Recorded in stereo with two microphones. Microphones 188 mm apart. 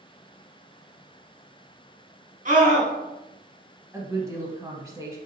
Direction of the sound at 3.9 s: 15° right (ahead or behind).